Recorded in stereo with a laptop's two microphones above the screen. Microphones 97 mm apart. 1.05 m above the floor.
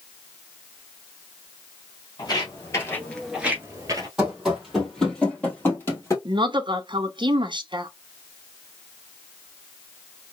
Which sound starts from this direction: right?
A woman speaking, at 6.2 s.